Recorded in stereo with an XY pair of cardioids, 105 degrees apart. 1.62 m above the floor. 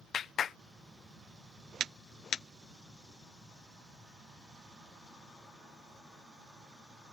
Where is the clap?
55° left.